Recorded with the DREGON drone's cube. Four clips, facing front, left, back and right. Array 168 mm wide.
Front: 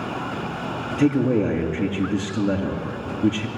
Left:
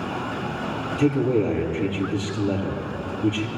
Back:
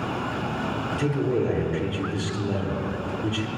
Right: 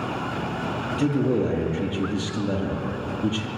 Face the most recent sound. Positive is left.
turn(degrees=-10)